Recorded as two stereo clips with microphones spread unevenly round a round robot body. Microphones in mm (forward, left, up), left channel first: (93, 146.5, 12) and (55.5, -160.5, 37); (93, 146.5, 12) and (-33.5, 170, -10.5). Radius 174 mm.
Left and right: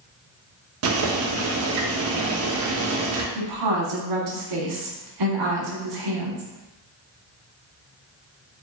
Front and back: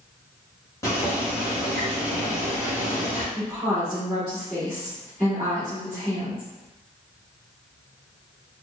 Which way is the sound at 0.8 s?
85° right.